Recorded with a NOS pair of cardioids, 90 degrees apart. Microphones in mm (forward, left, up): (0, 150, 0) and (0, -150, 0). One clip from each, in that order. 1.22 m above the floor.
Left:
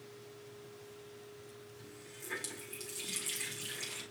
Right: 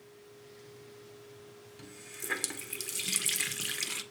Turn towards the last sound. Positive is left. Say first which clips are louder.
# right 8 dB
turn(degrees=-60)